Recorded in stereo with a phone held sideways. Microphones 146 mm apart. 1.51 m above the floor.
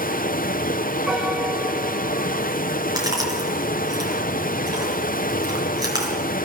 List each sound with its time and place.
0.0 s running water: 70° left (ahead or behind), 0.7 m
1.1 s a piano: 5° right (ahead or behind), 2.5 m
3.0 s chewing: 25° right (ahead or behind), 5 m